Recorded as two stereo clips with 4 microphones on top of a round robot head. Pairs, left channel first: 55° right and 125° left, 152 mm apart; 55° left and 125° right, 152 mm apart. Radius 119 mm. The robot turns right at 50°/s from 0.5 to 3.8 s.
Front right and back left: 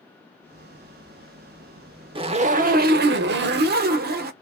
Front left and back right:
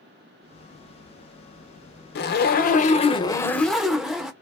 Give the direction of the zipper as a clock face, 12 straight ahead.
10 o'clock.